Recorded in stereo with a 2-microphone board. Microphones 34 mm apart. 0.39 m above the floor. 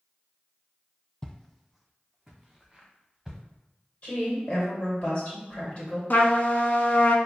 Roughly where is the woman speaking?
Left.